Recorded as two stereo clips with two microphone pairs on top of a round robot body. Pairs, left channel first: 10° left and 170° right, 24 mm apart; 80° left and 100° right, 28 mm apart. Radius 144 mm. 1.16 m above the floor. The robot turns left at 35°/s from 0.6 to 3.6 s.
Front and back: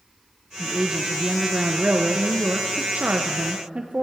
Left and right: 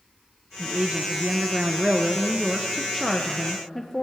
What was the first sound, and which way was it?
A woman speaking, 105° right.